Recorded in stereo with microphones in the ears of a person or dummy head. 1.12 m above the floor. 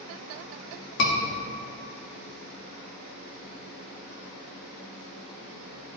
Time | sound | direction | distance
1.0 | a scream | 55° left (ahead or behind) | 2 m